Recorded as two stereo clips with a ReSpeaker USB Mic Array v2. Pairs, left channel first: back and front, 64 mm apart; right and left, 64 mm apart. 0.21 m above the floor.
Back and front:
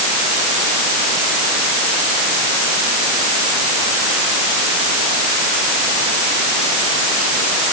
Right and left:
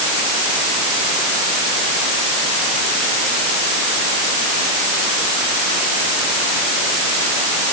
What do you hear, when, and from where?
Only background noise.